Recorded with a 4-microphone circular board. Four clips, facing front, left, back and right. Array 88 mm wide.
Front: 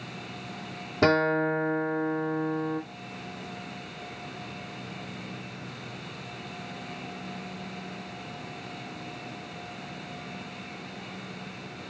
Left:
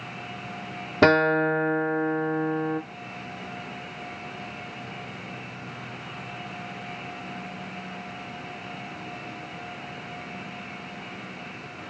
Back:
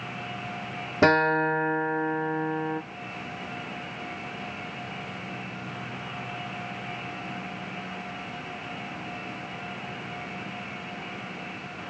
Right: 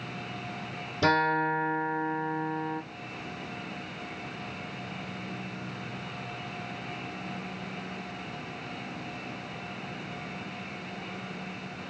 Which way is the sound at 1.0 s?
100° left.